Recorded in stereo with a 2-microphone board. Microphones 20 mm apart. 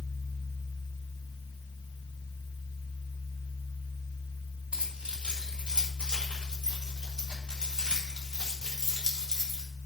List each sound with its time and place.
4.7 s keys jangling: 80° right, 5 m; by 9.6 s 30° right (ahead or behind), 3.5 m